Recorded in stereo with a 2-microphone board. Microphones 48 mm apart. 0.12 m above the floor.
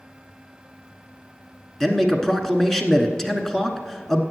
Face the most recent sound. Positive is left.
turn(degrees=10)  # may be behind; listen again after turning